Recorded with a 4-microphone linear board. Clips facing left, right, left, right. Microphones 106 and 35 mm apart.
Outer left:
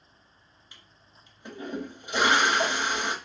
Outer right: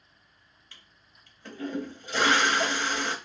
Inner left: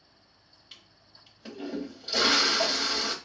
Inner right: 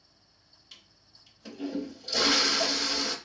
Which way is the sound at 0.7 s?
20° left (ahead or behind).